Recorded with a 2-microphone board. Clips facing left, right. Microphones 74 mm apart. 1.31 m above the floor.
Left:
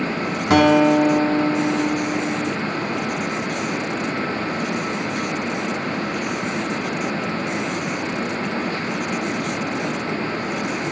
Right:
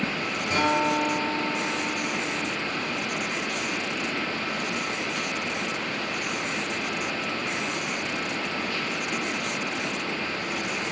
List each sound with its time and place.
0.5 s a guitar: 75° left (ahead or behind), 3 m